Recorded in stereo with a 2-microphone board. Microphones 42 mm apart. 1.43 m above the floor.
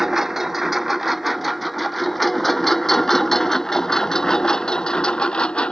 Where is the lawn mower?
10° right (ahead or behind); by 5.7 s 20° left (ahead or behind).